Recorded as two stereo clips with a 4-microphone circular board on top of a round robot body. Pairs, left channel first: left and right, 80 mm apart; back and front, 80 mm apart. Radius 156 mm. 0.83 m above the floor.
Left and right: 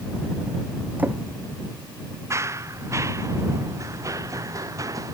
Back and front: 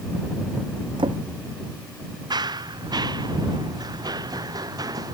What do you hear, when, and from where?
1.0 s a drawer: 20° right
2.3 s running footsteps: 35° right; by 5.2 s 40° right